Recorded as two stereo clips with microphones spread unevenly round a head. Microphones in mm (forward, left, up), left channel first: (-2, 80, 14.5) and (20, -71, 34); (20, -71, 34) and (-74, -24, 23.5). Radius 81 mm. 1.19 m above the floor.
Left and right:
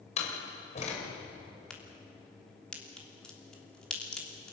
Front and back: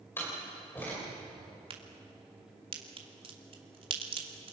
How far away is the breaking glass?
No breaking glass in this recording.